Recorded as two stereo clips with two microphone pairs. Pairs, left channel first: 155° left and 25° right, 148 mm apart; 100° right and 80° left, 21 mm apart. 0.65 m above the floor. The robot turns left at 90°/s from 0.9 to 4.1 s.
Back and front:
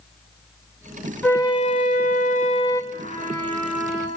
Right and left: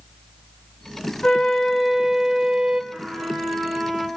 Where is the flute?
130° right, 2.5 m; by 2.8 s 90° left, 2.5 m.